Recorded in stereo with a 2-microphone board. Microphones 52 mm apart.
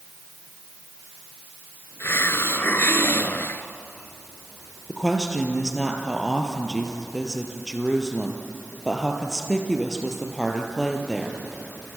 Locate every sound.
2.0 s a hiss: 50° left (ahead or behind), 1.3 m
4.9 s a woman speaking: 5° left (ahead or behind), 3.5 m